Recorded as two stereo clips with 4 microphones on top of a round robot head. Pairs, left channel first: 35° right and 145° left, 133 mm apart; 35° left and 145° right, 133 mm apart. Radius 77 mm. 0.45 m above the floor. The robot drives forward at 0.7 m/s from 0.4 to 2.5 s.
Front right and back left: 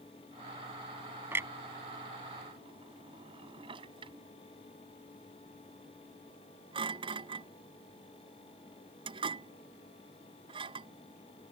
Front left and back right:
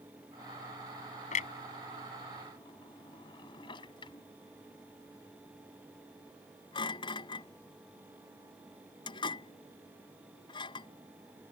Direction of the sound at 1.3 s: 70° left.